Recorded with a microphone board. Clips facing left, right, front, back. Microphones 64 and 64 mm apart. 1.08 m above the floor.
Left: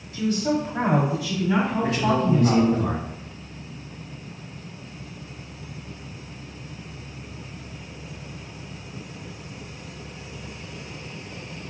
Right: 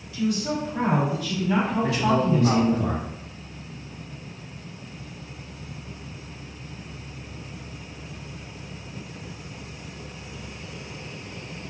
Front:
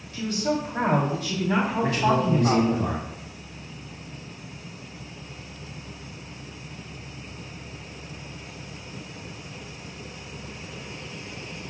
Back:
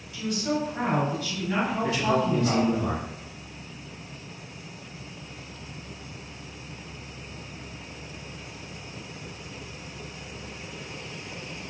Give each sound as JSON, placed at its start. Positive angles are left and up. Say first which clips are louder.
{"t": 0.1, "sound": "a woman speaking", "louder": "left 2 dB, front 2 dB", "azimuth_deg": 40, "distance_m": 1.6}
{"t": 1.8, "sound": "a man speaking", "louder": "even, front 1 dB", "azimuth_deg": 45, "distance_m": 1.4}